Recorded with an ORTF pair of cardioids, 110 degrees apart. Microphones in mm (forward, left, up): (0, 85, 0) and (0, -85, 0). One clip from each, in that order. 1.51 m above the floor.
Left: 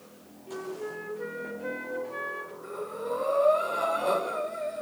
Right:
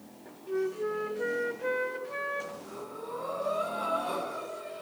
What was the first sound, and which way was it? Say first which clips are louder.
A flute: right 5 dB; 25° right.